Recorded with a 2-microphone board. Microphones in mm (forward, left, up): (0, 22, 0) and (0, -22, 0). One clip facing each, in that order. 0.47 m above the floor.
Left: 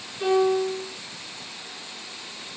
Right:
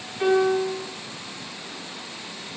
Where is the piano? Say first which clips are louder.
Right 1 dB; 45° right (ahead or behind), 3 m.